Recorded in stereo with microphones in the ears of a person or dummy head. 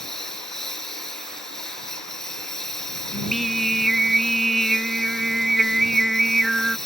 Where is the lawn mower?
5° left (ahead or behind).